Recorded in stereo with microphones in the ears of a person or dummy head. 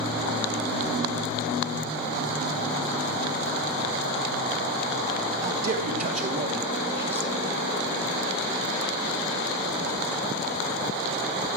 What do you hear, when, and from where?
5.4 s a man speaking: 60° right (ahead or behind), 3 m; by 7.4 s 5° right (ahead or behind), 2.5 m